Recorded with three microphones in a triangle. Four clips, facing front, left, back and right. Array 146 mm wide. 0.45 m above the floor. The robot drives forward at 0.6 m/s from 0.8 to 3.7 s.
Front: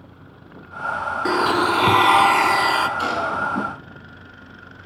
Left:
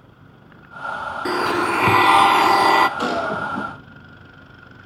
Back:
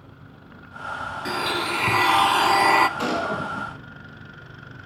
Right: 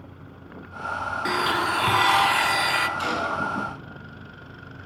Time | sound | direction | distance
1.2 | a blender | 30° left | 1.0 m
3.0 | a gunshot | 105° left | 5 m